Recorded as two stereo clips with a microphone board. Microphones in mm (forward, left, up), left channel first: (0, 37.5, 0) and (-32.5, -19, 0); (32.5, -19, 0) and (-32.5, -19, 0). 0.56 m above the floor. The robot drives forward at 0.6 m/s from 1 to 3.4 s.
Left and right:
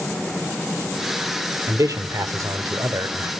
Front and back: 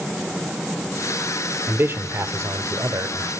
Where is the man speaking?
130° right, 1.3 m; by 3.3 s 155° right, 2.0 m.